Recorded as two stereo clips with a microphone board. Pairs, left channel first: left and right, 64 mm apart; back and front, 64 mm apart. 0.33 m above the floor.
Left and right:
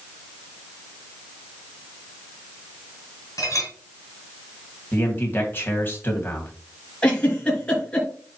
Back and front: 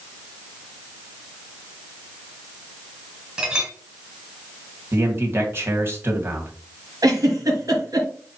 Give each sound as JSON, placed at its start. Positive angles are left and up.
{"t": 3.4, "sound": "a clink", "azimuth_deg": 75, "distance_m": 2.5}
{"t": 4.9, "sound": "a man speaking", "azimuth_deg": 45, "distance_m": 2.0}
{"t": 7.0, "sound": "a giggle", "azimuth_deg": 25, "distance_m": 3.0}